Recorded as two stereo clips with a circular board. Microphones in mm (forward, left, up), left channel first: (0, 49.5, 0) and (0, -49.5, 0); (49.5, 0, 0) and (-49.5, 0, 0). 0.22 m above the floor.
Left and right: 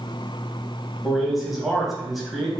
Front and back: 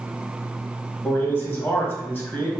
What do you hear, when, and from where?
1.0 s a man speaking: 10° right, 1.0 m